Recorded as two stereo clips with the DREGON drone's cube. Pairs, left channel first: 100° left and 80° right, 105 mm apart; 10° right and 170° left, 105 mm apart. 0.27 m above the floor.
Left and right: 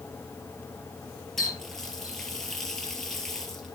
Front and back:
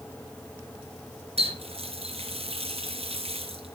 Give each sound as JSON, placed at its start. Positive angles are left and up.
{"t": 1.4, "sound": "a running tap", "azimuth_deg": -175, "distance_m": 3.0}